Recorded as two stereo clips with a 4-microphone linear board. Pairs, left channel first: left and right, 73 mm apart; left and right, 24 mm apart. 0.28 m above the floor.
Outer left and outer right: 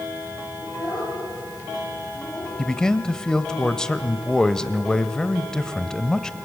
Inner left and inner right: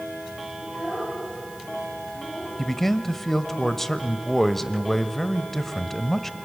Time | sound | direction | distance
0.6 | a child speaking | 45° left (ahead or behind) | 6 m
2.6 | a man speaking | 10° left (ahead or behind) | 1.0 m